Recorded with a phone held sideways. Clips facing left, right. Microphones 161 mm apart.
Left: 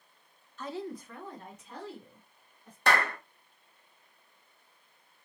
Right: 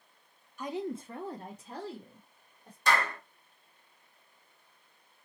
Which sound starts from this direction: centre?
A woman speaking, at 0.6 s.